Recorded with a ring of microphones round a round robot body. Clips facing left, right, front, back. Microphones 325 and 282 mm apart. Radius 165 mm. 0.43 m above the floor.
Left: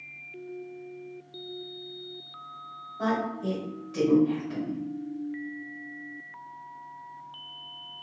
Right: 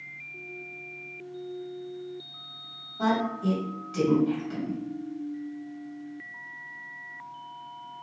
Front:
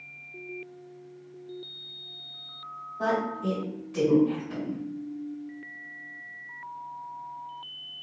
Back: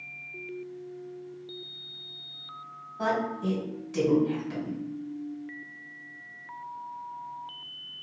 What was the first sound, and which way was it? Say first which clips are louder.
A woman speaking: right 2 dB, front 1 dB; 155° right.